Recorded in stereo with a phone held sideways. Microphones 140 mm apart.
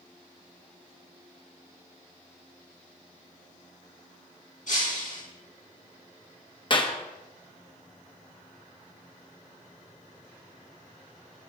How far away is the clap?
About 1.1 m.